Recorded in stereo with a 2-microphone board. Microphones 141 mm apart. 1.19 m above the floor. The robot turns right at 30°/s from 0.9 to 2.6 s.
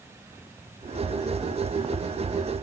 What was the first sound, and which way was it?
Only background noise.